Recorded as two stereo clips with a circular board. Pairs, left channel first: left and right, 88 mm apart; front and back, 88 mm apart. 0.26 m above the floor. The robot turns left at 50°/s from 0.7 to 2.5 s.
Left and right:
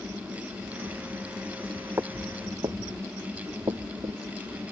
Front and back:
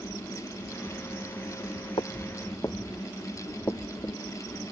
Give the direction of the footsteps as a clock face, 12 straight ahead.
1 o'clock.